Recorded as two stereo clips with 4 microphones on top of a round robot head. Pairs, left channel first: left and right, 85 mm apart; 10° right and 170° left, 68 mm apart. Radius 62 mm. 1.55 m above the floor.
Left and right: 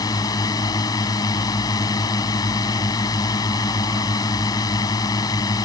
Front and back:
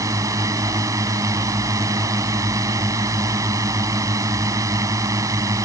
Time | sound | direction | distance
0.0 | a drone | 135° left | ?